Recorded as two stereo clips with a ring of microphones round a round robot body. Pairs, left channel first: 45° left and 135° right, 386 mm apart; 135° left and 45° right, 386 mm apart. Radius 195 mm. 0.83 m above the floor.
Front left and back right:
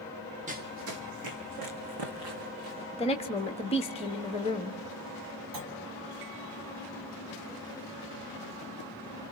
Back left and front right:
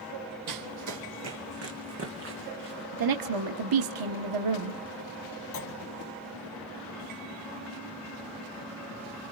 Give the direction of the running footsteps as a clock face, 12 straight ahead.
2 o'clock.